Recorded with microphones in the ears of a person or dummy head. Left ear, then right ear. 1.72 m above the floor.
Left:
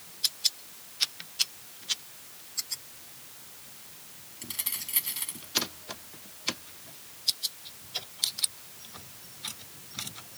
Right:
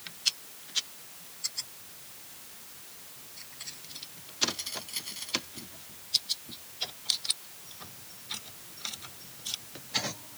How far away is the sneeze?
No sneeze in this recording.